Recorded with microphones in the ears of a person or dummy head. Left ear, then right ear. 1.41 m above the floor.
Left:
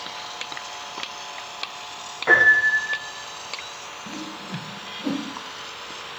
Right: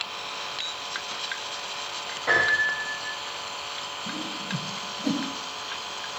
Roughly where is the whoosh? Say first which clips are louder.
Right 2 dB; centre.